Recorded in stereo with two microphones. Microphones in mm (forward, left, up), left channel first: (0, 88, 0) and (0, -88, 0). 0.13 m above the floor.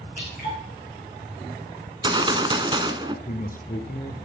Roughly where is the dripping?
Left.